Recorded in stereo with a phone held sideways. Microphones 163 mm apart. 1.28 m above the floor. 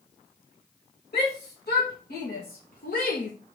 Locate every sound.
1.1 s a shout: 80° left, 2.5 m; by 3.3 s 50° left (ahead or behind), 0.8 m